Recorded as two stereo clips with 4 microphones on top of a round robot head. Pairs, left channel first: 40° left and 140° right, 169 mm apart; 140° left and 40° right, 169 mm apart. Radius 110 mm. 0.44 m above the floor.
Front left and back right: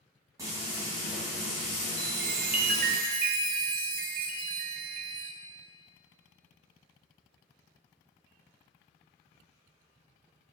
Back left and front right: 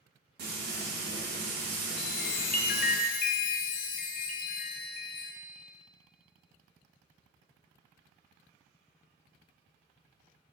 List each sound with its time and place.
0.4 s frying: 70° right, 3.5 m
2.0 s a chime: straight behind, 0.5 m